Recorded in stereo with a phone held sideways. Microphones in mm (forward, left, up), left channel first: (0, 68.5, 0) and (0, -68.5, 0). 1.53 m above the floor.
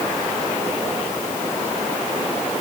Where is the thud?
I don't hear a thud.